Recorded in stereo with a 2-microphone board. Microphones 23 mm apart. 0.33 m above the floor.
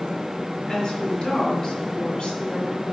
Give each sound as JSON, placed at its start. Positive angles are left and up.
{"t": 0.7, "sound": "a woman speaking", "side_deg": 30, "distance_m": 3.5}